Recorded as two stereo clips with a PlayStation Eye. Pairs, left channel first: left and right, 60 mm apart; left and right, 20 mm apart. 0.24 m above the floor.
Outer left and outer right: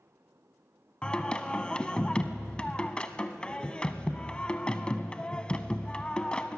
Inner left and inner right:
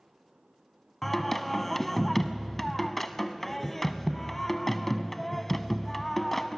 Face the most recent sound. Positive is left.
turn(degrees=15)  # may be behind; listen again after turning